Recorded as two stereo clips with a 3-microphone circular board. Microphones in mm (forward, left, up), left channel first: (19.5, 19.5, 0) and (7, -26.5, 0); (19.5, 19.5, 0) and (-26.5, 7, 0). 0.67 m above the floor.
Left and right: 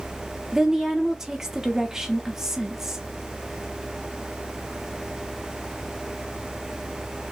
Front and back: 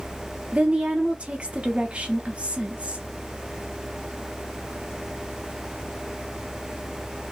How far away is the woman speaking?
About 0.5 m.